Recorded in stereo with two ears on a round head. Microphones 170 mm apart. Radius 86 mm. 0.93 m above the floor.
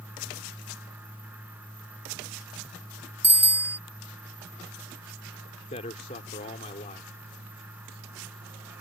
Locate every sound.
3.2 s a bicycle bell: 10° right (ahead or behind)
5.7 s a man speaking: 35° left (ahead or behind)